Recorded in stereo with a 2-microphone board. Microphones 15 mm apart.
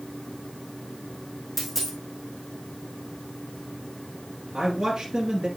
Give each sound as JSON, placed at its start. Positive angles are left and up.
{"t": 1.6, "sound": "a dropped coin", "side_deg": 5, "distance_m": 3.0}
{"t": 4.5, "sound": "a man speaking", "side_deg": -40, "distance_m": 1.9}